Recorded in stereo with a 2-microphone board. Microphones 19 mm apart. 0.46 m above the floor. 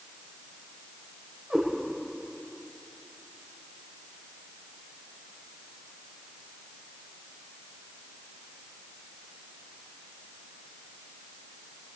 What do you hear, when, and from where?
1.5 s a cat meowing: 45° right (ahead or behind), 8.5 m